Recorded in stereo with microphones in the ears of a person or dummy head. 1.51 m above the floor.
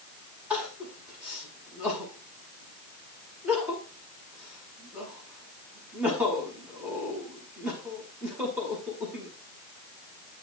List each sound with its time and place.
0.5 s crying: 10° right (ahead or behind), 5 m